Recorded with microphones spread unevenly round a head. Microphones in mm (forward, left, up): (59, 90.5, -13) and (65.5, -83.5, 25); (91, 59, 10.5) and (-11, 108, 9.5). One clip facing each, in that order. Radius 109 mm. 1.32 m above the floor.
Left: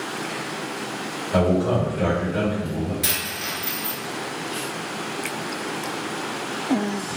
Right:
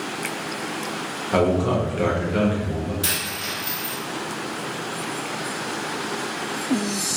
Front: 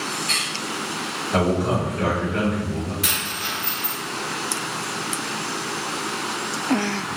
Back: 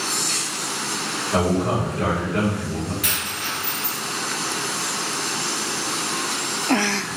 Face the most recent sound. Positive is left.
turn(degrees=5)